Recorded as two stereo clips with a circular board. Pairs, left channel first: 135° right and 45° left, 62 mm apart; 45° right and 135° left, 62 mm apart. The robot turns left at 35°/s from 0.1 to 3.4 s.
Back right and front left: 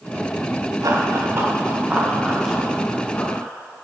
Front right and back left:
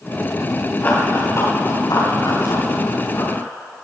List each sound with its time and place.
0.8 s running footsteps: 15° left, 9 m; by 3.4 s 85° right, 12 m